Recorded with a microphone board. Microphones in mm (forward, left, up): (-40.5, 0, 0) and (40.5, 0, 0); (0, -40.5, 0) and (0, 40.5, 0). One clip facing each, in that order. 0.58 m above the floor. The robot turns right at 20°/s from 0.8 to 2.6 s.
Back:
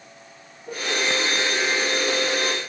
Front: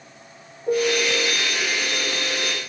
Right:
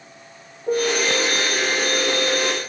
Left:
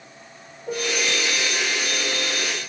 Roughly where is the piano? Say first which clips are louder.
Front 5 dB, right 6 dB; ahead right.